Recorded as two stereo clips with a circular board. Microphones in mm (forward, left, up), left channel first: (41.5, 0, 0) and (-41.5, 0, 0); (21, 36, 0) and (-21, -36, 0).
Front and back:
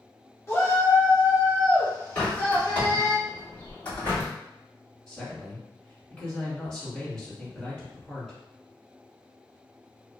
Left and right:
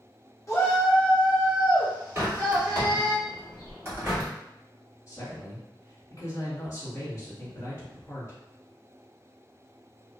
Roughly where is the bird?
Right.